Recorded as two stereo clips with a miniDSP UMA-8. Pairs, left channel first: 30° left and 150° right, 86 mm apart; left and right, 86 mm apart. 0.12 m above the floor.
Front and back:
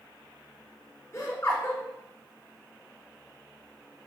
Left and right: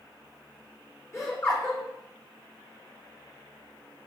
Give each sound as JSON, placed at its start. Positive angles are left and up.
{"t": 1.1, "sound": "laughter", "azimuth_deg": 60, "distance_m": 1.7}